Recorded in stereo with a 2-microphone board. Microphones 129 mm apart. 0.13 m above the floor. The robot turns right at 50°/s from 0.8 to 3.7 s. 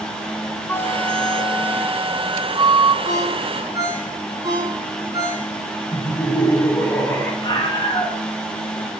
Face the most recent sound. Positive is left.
turn(degrees=35)  # may be behind; listen again after turning